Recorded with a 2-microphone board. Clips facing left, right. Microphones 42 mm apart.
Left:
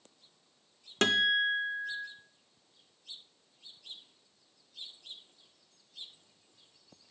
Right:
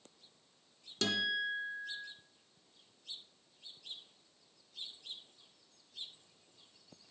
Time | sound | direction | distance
1.0 | a guitar | 60° left (ahead or behind) | 0.5 m